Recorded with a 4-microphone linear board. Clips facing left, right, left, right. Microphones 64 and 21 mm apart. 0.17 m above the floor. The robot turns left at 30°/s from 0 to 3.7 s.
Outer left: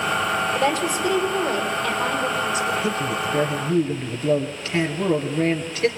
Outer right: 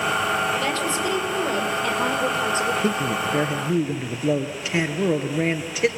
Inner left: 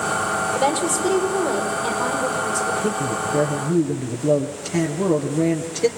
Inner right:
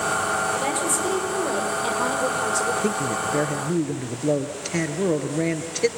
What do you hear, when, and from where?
0.6 s a woman speaking: 25° left, 5.5 m; by 2.7 s 40° right, 5.5 m
2.8 s a man speaking: 35° right (ahead or behind), 3 m; by 5.9 s 10° right (ahead or behind), 3 m